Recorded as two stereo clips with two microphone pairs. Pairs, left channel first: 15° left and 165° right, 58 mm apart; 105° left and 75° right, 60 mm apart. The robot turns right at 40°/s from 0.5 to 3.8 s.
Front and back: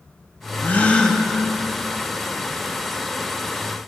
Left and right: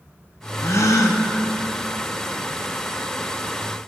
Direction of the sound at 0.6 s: 70° left.